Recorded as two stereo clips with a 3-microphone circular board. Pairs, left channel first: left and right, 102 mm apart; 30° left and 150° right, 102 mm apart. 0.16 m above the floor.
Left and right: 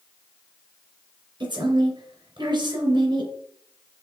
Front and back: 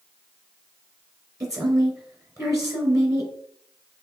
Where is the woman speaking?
100° right, 2.5 m.